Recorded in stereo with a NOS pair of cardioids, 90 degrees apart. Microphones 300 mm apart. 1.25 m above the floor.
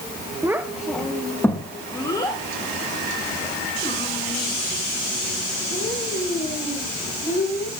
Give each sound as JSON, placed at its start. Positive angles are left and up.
{"t": 0.4, "sound": "a child speaking", "azimuth_deg": -10, "distance_m": 0.8}